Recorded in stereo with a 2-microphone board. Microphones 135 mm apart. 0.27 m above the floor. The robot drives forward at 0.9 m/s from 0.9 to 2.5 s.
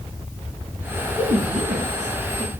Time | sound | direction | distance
1.2 | a woman speaking | 55° right (ahead or behind) | 2.5 m